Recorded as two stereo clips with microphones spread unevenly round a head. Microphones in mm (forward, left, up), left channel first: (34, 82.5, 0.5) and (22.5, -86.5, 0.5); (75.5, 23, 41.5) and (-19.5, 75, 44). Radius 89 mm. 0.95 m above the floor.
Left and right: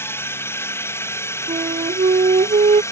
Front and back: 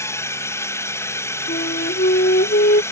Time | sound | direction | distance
0.0 | a drone | 20° left | ?
1.5 | a flute | 35° right | ?